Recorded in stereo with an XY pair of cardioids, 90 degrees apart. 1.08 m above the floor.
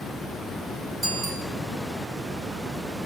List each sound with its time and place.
1.0 s a bicycle bell: 60° right, 7 m